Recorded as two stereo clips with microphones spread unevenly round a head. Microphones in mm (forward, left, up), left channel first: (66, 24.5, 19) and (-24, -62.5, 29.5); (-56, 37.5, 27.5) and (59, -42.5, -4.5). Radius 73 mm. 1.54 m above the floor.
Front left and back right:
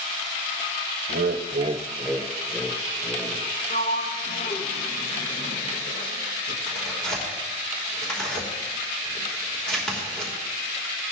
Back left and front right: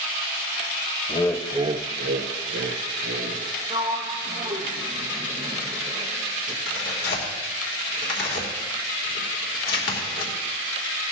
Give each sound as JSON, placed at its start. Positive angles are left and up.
{"t": 1.1, "sound": "laughter", "azimuth_deg": -165, "distance_m": 0.9}
{"t": 3.7, "sound": "a sliding door", "azimuth_deg": 35, "distance_m": 1.2}
{"t": 6.7, "sound": "tearing paper", "azimuth_deg": 130, "distance_m": 2.5}